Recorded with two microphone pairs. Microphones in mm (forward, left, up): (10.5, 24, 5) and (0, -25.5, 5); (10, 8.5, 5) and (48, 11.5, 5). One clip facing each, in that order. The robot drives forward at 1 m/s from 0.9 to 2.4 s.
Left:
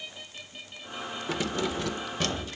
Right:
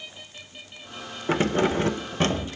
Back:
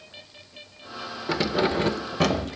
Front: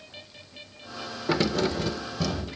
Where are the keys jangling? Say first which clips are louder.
Right 8 dB, back 1 dB; 75° right, 0.6 m; by 2.5 s 160° right, 1.2 m.